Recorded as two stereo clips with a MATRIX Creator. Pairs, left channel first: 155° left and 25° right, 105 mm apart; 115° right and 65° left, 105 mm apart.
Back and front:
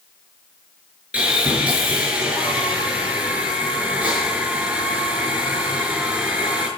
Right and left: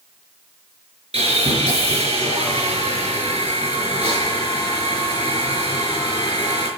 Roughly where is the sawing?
Ahead left.